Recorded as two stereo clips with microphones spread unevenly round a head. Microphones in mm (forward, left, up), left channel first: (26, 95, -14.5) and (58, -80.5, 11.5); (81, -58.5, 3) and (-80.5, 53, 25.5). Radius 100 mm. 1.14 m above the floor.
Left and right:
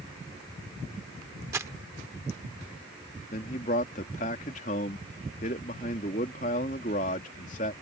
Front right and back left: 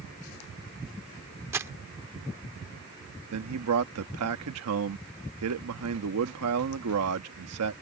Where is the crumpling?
145° right.